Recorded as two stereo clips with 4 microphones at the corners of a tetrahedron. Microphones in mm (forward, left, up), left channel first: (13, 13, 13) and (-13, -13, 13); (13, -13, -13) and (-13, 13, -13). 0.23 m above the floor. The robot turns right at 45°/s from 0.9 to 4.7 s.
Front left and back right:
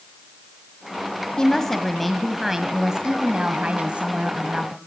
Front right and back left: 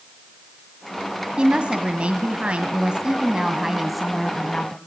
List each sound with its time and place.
1.4 s a woman speaking: 100° left, 1.7 m; by 4.8 s 110° right, 1.7 m